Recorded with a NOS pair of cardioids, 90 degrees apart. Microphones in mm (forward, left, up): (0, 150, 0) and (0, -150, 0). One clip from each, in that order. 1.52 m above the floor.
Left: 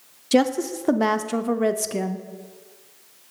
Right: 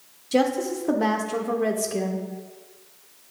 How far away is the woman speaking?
About 0.6 m.